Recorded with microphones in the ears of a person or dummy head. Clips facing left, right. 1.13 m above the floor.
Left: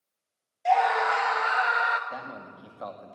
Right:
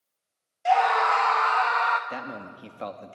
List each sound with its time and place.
0.7 s a scream: centre (ahead or behind), 0.8 m; by 2.0 s 10° left (ahead or behind), 1.5 m
2.1 s a man speaking: 35° right (ahead or behind), 2.0 m